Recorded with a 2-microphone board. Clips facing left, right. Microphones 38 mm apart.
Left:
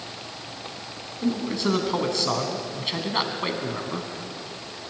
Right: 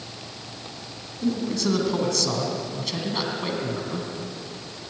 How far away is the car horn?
I don't hear a car horn.